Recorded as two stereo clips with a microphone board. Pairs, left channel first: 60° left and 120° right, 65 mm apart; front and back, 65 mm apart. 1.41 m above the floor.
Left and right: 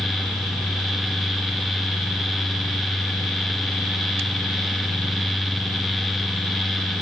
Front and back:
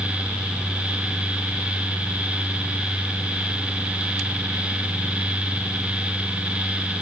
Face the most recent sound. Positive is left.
No sound to turn to.